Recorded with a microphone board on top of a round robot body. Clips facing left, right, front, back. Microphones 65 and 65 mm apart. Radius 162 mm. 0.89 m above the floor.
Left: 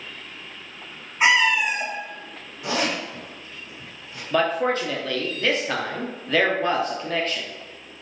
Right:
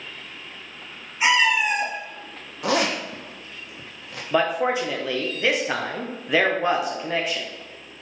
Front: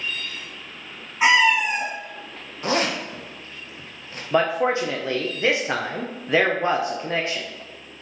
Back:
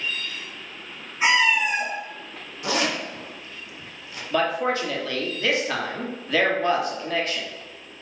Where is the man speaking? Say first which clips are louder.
Even, front 3 dB; 30° right, 0.9 m.